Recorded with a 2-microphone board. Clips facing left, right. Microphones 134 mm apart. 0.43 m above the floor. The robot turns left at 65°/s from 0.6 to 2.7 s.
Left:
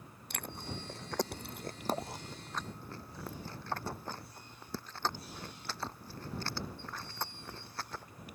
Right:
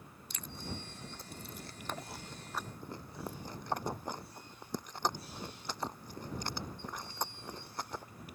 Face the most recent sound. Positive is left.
turn(degrees=-15)  # may be behind; listen again after turning